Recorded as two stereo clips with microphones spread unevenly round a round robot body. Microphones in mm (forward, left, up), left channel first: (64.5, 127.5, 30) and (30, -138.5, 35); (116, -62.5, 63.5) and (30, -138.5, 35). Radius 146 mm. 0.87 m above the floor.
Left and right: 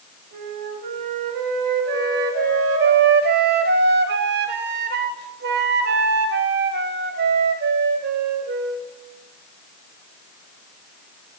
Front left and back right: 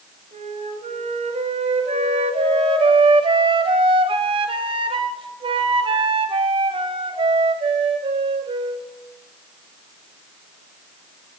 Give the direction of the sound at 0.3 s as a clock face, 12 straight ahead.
4 o'clock.